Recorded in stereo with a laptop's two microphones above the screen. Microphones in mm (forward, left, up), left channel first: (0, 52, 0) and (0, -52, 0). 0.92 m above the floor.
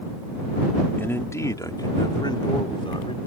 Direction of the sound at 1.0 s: 20° left (ahead or behind).